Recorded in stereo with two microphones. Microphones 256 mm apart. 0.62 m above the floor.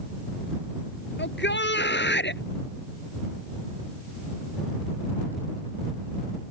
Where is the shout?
45° left (ahead or behind).